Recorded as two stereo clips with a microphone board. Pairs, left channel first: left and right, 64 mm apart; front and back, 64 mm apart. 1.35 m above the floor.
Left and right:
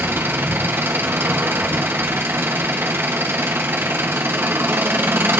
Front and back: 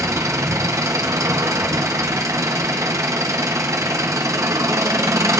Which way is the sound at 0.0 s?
145° right.